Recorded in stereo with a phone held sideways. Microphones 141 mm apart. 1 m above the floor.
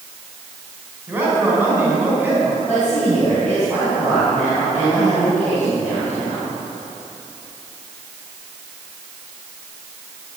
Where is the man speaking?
15° right (ahead or behind), 5 m.